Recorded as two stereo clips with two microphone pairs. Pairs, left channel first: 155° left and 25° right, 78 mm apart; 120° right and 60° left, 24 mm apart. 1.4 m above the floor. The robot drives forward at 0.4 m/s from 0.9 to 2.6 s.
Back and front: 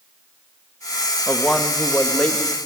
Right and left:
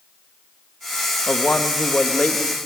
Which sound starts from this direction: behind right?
A man speaking, at 1.3 s.